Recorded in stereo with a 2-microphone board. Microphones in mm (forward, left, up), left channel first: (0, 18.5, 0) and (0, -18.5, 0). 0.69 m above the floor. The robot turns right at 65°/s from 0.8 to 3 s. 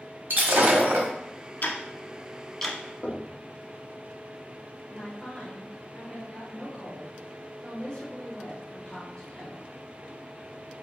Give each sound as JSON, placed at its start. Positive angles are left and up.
{"t": 0.3, "sound": "breaking glass", "side_deg": -60, "distance_m": 1.1}
{"t": 1.6, "sound": "ticking", "side_deg": 55, "distance_m": 0.8}
{"t": 3.0, "sound": "knocking", "side_deg": 35, "distance_m": 0.9}
{"t": 4.9, "sound": "a woman speaking", "side_deg": 25, "distance_m": 1.7}